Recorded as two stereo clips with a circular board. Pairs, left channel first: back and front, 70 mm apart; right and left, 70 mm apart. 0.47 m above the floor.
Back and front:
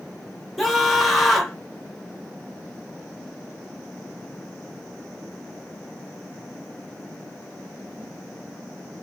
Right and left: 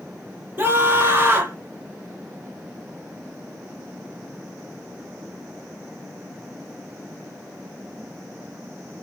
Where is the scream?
90° left, 0.9 m.